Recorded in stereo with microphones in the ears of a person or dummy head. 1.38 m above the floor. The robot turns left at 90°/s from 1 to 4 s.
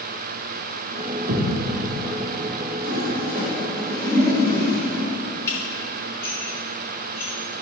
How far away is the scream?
I don't hear a scream.